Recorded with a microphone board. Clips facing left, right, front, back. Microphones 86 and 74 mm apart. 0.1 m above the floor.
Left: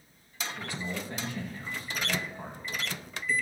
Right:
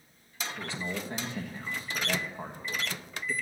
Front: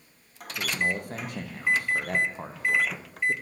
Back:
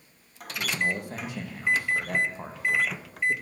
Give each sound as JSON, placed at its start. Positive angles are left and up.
{"t": 0.6, "sound": "a man speaking", "azimuth_deg": -30, "distance_m": 4.0}